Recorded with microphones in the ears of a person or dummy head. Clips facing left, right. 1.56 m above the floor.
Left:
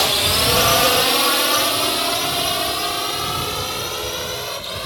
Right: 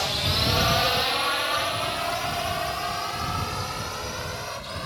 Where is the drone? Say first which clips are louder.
Left 7 dB; 70° left (ahead or behind); by 4.9 s 50° left (ahead or behind).